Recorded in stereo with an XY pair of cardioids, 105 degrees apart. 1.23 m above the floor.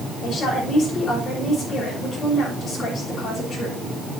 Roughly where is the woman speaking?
Ahead left.